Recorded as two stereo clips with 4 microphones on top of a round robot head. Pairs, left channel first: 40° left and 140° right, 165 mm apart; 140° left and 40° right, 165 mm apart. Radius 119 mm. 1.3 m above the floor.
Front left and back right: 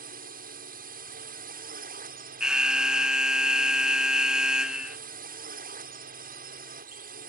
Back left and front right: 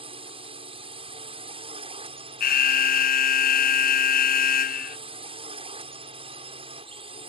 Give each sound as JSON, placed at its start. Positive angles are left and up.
{"t": 0.0, "sound": "a drone", "azimuth_deg": -100}
{"t": 2.4, "sound": "an alarm", "azimuth_deg": 135}